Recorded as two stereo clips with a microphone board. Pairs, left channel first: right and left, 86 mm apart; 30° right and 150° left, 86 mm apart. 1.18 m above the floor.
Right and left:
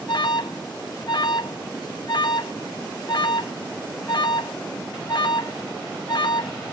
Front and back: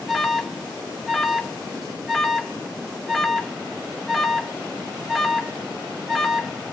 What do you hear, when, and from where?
0.1 s an alarm: 120° right, 0.9 m